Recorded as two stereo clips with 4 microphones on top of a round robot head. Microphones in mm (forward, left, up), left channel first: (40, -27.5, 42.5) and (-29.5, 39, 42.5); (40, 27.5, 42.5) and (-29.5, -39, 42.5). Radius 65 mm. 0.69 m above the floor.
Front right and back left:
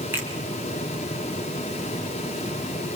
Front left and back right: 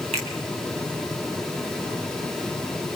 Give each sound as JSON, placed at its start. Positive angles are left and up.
{"t": 0.1, "sound": "a finger snap", "azimuth_deg": -155, "distance_m": 4.5}